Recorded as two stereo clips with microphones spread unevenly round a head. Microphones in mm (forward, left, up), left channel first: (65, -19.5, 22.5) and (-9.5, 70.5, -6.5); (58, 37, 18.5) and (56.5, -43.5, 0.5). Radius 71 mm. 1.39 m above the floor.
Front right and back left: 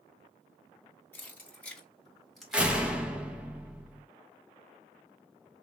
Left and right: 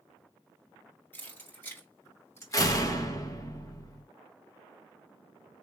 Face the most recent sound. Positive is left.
turn(degrees=45)